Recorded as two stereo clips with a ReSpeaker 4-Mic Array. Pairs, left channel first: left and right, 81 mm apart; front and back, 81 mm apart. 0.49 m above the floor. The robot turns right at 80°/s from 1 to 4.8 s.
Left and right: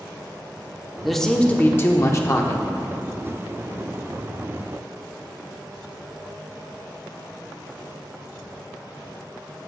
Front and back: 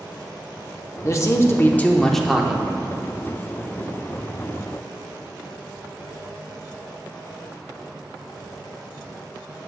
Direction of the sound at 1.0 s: 5° right.